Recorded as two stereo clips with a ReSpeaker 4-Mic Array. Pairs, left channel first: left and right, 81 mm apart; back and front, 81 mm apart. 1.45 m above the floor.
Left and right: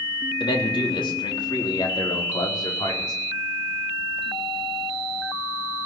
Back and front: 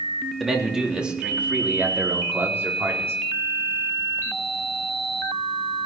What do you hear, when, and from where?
0.4 s a man speaking: 90° left, 3.5 m; by 3.1 s 55° left, 5 m